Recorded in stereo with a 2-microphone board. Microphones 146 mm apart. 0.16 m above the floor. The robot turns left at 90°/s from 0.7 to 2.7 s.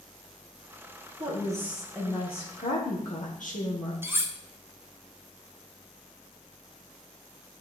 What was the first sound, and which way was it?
A woman speaking, 125° right.